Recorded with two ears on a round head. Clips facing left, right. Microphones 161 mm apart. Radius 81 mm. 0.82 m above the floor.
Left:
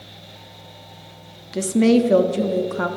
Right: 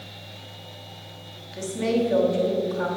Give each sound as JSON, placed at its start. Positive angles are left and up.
{"t": 1.5, "sound": "a woman speaking", "side_deg": 65, "distance_m": 1.1}